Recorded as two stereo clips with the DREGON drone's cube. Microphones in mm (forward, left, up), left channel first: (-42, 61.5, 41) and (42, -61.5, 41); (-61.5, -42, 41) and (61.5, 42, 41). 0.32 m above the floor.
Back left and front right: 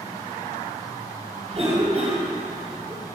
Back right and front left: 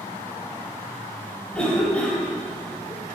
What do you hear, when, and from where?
1.5 s a cough: 65° right, 2 m